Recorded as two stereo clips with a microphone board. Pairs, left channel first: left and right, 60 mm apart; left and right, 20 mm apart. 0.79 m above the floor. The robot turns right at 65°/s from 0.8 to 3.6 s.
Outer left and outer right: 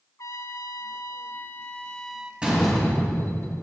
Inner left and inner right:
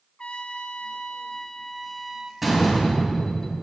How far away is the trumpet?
About 0.5 m.